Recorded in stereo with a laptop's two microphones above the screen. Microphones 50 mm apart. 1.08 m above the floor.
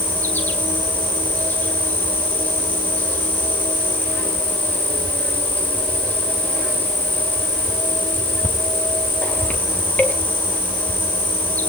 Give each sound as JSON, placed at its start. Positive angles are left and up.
{"t": 0.0, "sound": "an insect", "side_deg": 45, "distance_m": 2.0}